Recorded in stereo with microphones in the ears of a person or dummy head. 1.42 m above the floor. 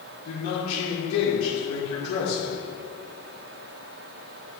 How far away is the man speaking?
About 2 m.